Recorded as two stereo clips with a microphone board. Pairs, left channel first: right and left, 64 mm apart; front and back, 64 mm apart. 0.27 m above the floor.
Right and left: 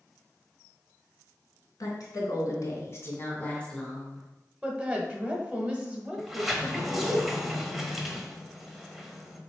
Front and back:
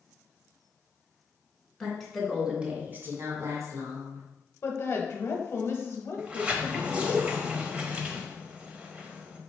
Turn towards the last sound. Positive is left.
turn(degrees=170)